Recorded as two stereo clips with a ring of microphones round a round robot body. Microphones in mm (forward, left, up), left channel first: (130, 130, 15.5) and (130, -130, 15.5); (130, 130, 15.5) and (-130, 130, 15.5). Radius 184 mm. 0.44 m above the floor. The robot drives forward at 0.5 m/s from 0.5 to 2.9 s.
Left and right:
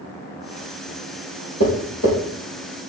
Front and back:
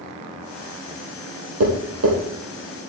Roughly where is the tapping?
Behind left.